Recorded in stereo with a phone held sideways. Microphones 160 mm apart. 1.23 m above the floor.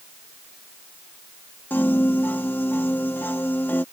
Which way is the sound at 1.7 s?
10° left (ahead or behind).